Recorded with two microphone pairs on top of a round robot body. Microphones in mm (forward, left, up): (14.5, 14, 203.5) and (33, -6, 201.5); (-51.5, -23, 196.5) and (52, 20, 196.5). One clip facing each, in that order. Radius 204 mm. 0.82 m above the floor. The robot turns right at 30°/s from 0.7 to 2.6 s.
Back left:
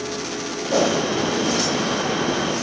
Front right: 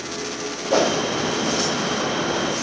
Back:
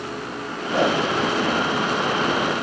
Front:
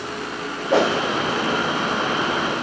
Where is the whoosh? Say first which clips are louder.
Even, front 2 dB; 15° left, 1.4 m; by 1.0 s 25° left, 1.4 m.